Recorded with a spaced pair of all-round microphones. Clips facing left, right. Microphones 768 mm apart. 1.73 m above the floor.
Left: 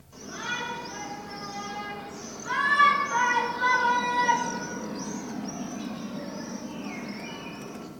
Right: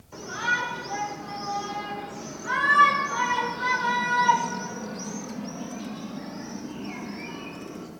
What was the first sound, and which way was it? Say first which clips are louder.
A shout: right 3 dB; 90° right.